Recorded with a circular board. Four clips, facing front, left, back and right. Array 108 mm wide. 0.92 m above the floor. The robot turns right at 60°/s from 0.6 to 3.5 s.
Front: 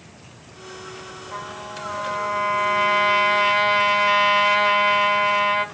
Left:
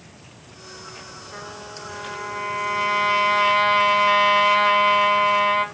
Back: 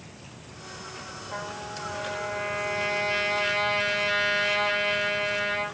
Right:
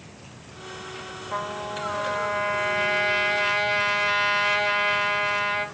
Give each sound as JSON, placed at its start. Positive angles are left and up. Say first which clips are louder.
{"t": 1.3, "sound": "a trumpet", "louder": "right 8 dB, front 2 dB", "azimuth_deg": -80, "distance_m": 3.0}